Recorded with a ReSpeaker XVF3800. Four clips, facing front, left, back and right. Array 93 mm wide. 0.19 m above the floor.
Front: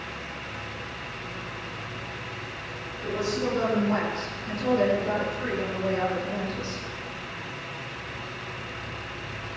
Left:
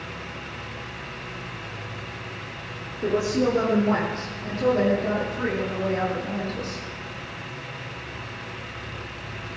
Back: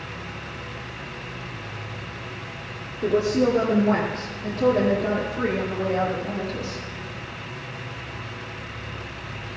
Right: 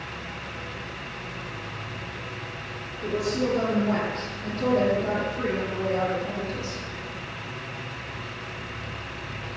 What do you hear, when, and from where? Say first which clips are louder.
3.0 s a woman speaking: left 4 dB, back 8 dB; 150° left, 3.5 m; by 6.8 s 160° right, 7 m